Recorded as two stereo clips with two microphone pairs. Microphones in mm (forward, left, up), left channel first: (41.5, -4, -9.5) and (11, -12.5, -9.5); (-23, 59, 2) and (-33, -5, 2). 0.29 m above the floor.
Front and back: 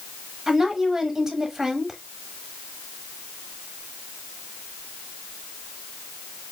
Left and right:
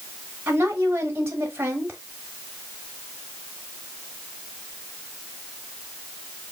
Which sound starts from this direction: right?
A woman speaking, at 0.5 s.